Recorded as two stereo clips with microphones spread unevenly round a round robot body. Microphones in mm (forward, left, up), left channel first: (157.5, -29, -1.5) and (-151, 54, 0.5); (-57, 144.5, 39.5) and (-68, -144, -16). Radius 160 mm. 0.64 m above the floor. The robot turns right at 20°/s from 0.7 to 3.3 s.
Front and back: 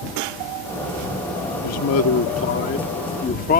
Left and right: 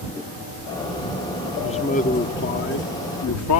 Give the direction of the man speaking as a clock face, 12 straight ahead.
12 o'clock.